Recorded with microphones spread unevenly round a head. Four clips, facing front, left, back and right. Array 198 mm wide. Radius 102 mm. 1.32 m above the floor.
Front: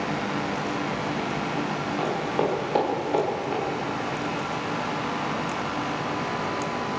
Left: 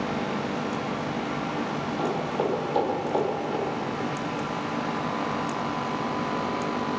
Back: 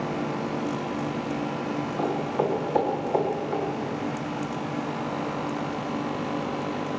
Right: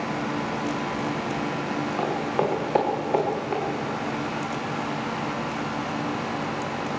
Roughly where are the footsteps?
Ahead right.